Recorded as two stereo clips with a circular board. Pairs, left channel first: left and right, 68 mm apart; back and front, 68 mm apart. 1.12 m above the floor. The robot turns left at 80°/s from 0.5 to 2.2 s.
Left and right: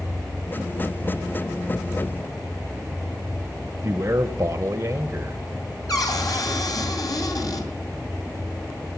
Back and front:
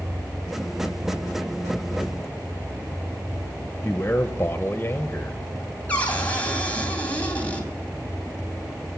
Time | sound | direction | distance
3.8 | a man speaking | 125° right | 0.7 m
5.9 | a cupboard door | 110° left | 2.5 m